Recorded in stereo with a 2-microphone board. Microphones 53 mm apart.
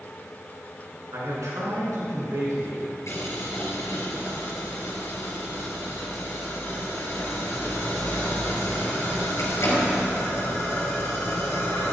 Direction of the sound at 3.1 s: 60° left (ahead or behind).